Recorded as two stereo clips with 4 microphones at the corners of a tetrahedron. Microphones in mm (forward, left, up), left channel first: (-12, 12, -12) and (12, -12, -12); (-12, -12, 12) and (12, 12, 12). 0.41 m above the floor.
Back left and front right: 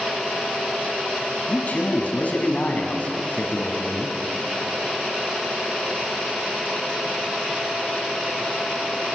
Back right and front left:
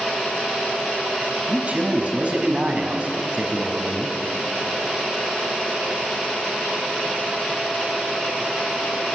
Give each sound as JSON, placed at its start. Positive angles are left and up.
{"t": 1.5, "sound": "a man speaking", "azimuth_deg": 90, "distance_m": 4.0}